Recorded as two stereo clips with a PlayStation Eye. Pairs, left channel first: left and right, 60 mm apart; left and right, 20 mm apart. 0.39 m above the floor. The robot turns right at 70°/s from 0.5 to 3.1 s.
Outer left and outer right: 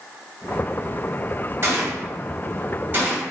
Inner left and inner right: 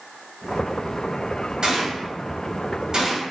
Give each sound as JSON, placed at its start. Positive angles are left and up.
{"t": 1.6, "sound": "a gunshot", "side_deg": -45, "distance_m": 0.8}